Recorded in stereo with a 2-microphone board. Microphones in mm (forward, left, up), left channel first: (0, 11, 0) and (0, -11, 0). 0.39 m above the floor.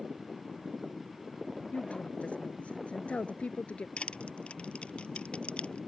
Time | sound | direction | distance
1.7 | a woman speaking | 80° left | ?
4.0 | crushing | 65° left (ahead or behind) | ?